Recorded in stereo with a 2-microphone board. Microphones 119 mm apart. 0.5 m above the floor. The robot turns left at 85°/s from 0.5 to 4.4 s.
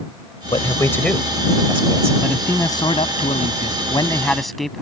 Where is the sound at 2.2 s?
175° right; by 4.8 s straight ahead.